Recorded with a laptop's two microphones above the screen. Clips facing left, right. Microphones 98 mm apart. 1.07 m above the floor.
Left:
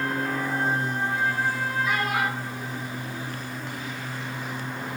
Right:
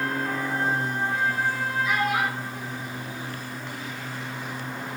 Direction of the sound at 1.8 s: 50° left (ahead or behind).